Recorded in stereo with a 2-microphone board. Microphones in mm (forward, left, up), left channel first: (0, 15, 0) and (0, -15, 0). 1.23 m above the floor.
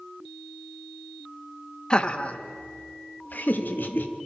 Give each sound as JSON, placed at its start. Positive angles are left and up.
{"t": 1.9, "sound": "laughter", "side_deg": 30, "distance_m": 1.4}